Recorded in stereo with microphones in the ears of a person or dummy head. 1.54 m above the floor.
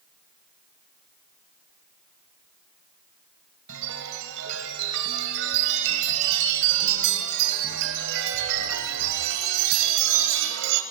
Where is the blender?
No blender in this recording.